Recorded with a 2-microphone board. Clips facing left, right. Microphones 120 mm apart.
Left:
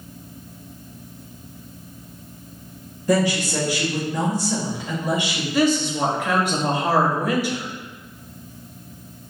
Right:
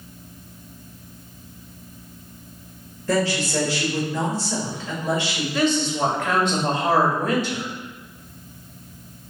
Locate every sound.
3.1 s a woman speaking: 15° left (ahead or behind), 1.2 m
5.5 s a woman speaking: 10° left (ahead or behind), 1.0 m